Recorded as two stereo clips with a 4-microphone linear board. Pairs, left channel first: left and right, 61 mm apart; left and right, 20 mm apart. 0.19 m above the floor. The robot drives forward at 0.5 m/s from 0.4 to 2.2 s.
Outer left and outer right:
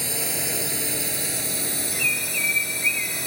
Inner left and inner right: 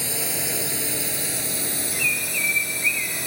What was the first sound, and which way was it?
A drone, centre (ahead or behind).